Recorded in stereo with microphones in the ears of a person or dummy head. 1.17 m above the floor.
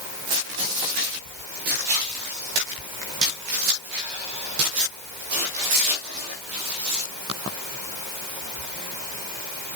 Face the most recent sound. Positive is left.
No sound to turn to.